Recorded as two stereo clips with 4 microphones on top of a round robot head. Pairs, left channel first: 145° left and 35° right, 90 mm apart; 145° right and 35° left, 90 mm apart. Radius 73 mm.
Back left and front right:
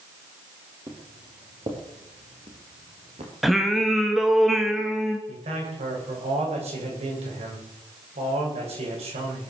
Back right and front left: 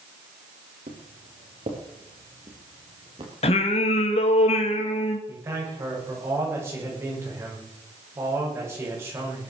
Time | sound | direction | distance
0.9 | footsteps | 20° left | 4 m
3.4 | singing | 125° right | 1.9 m
5.3 | a man speaking | 30° right | 7.5 m